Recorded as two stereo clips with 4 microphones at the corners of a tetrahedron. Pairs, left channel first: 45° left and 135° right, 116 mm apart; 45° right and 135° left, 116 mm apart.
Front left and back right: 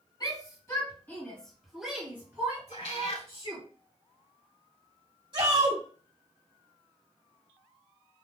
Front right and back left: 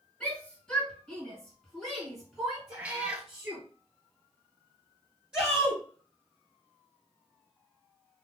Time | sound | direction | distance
0.2 | a shout | 25° left | 1.8 m
2.7 | a cat meowing | 60° left | 0.6 m
5.3 | a shout | 145° right | 2 m